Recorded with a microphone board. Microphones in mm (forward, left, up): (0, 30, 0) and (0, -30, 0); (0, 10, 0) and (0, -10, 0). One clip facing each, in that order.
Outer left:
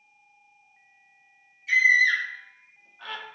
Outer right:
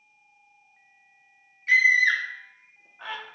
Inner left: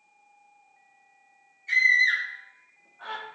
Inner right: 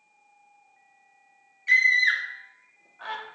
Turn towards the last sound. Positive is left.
turn(degrees=-15)  # may be behind; listen again after turning